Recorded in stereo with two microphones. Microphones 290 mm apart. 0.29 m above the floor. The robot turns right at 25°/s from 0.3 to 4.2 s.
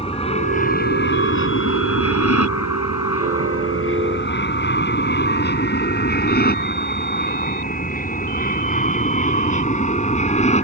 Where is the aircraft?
20° left (ahead or behind); by 10.7 s 25° left (ahead or behind).